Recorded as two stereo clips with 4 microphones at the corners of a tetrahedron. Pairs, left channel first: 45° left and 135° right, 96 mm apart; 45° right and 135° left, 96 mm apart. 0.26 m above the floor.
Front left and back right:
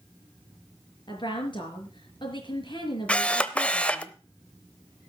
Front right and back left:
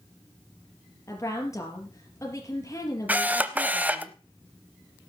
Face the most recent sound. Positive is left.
turn(degrees=100)